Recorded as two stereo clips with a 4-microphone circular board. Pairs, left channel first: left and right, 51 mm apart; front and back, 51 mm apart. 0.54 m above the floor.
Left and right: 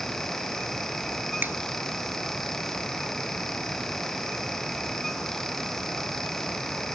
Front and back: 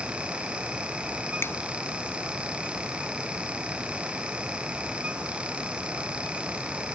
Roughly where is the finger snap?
Ahead right.